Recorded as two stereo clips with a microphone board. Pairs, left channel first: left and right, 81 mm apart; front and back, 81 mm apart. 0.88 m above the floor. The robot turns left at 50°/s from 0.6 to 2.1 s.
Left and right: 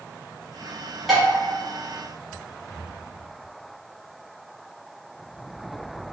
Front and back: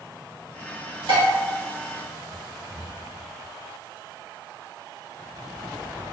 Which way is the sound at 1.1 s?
175° right.